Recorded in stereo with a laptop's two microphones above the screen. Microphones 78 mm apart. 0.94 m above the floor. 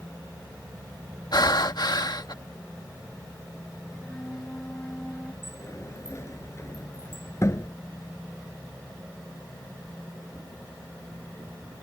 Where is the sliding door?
40° left (ahead or behind).